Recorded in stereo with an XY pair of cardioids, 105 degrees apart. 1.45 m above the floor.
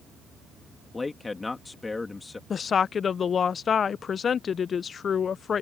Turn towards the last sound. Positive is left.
turn(degrees=45)